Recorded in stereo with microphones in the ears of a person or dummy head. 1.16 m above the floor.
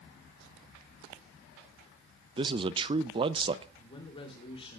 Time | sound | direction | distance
2.4 | a man speaking | 25° right (ahead or behind) | 0.5 m
3.8 | a man speaking | 30° left (ahead or behind) | 3 m